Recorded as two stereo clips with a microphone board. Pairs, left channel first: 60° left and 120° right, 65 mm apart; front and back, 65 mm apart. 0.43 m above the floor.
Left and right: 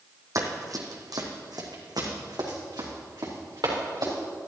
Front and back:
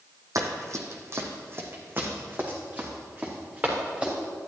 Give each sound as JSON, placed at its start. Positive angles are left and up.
{"t": 0.3, "sound": "running footsteps", "azimuth_deg": -150, "distance_m": 1.2}